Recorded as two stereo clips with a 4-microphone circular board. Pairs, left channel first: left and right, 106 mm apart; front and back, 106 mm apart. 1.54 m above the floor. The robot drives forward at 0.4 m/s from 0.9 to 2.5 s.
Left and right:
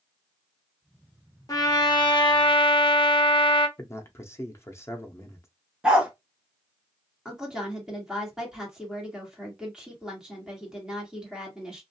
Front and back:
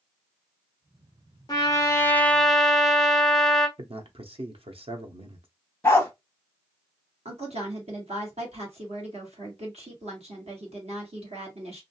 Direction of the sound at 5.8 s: 20° right.